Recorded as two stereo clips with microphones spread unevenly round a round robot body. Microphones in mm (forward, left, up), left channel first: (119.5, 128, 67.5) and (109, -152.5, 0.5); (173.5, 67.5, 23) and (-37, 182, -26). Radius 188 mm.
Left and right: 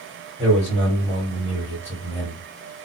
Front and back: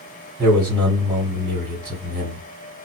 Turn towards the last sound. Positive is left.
turn(degrees=-155)